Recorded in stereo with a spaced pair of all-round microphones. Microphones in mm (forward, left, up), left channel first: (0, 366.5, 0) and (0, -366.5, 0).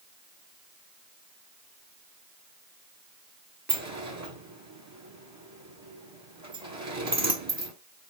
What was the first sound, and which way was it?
A sliding door, 20° right (ahead or behind).